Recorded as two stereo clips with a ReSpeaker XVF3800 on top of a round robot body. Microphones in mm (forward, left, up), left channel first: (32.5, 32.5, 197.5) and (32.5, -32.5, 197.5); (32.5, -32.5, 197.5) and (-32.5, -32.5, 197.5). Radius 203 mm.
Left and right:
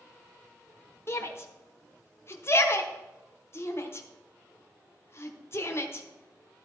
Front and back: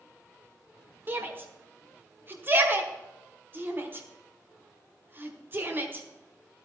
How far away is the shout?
About 1.4 m.